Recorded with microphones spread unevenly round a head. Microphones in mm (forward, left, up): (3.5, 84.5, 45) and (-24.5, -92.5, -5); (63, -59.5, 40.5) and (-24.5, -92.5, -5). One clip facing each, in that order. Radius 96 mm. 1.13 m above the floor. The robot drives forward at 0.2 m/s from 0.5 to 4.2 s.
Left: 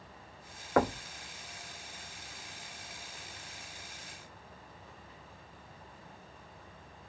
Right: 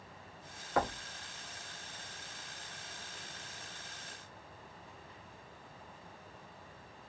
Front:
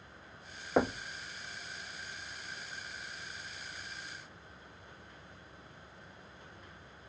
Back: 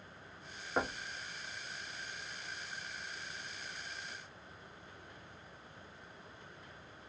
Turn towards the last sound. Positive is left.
turn(degrees=135)